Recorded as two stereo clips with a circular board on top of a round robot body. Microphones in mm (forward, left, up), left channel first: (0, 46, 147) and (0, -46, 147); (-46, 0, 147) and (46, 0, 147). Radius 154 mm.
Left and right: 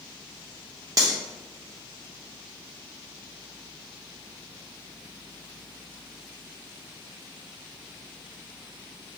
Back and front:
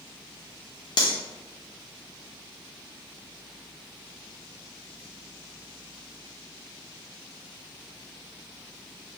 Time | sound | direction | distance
1.0 | cutlery clinking | 140° right | 0.5 m